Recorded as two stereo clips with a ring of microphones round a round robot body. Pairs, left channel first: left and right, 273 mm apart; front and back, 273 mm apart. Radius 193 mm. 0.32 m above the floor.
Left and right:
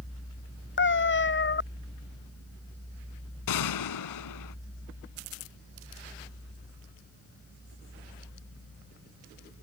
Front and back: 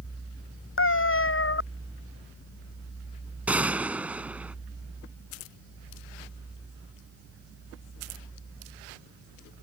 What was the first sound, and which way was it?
A cat meowing, 40° left.